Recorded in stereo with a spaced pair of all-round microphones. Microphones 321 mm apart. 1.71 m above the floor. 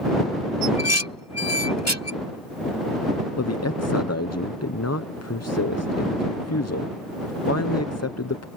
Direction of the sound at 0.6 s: 55° left (ahead or behind).